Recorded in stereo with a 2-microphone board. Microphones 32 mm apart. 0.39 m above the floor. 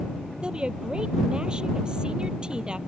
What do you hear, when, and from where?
0.4 s a woman speaking: 30° right (ahead or behind)